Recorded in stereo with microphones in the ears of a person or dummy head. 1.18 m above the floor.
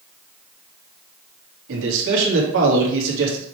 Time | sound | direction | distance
1.7 | a man speaking | 75° right (ahead or behind) | 2.5 m